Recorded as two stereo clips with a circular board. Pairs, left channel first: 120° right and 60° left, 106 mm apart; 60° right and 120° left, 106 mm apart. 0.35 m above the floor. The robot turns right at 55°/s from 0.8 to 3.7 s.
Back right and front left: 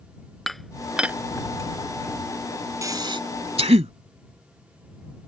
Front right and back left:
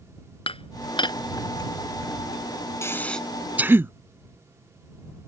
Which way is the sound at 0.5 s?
30° right.